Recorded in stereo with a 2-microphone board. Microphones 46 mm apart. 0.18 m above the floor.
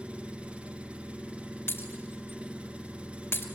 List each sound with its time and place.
0.0 s an engine running: 25° right (ahead or behind), 1.5 m
1.7 s breaking glass: 65° left (ahead or behind), 2 m